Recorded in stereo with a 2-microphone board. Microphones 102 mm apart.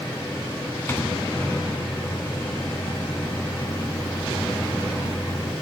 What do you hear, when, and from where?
0.9 s a microwave: 25° left (ahead or behind), 1.0 m